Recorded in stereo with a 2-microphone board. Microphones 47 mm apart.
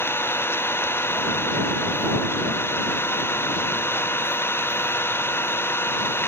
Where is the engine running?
55° left (ahead or behind).